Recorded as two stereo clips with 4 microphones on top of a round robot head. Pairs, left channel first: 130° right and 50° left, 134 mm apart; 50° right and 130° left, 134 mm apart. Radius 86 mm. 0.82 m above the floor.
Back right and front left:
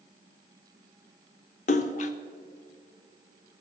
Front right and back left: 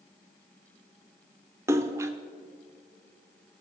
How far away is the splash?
About 0.6 m.